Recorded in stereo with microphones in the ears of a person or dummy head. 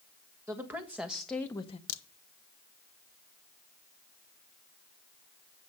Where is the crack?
85° left, 1.3 m.